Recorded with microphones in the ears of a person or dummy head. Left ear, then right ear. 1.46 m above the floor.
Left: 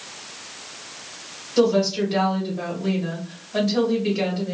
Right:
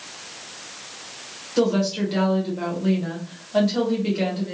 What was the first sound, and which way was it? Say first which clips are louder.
A woman speaking: left 3 dB; 5° right (ahead or behind).